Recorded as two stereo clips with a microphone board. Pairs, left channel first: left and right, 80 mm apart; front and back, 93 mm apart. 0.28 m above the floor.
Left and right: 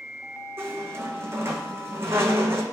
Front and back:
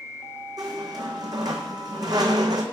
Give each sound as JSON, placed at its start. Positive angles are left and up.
{"t": 0.6, "sound": "a squeak", "azimuth_deg": -145, "distance_m": 0.6}